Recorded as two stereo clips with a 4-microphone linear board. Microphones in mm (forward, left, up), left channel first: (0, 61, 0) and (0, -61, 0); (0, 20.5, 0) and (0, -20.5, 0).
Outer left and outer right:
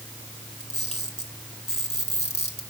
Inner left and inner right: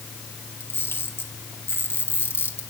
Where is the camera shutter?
65° left (ahead or behind), 4 m.